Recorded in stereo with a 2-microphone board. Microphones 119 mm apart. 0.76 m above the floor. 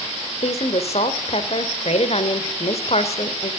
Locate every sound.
0.4 s a woman speaking: 60° left (ahead or behind), 3 m